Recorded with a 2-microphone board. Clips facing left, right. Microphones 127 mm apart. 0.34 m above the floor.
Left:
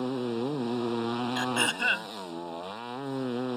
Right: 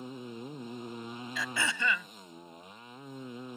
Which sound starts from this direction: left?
A motorcycle, at 0.0 s.